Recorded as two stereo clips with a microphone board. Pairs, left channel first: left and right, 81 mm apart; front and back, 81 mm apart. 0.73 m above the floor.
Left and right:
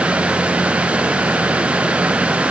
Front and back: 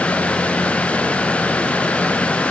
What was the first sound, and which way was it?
Only background noise.